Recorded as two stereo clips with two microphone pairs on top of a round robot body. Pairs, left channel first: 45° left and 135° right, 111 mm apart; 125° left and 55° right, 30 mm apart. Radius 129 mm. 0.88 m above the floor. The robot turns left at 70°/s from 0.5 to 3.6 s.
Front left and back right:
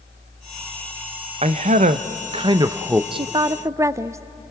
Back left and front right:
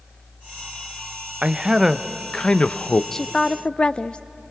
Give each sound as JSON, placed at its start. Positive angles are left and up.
{"t": 1.4, "sound": "a man speaking", "azimuth_deg": -110, "distance_m": 0.7}
{"t": 3.1, "sound": "a woman speaking", "azimuth_deg": -170, "distance_m": 0.5}